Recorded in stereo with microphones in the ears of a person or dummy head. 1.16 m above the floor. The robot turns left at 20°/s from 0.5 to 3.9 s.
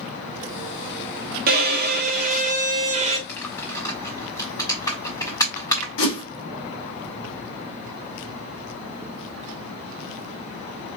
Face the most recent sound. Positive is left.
turn(degrees=75)  # may be behind; listen again after turning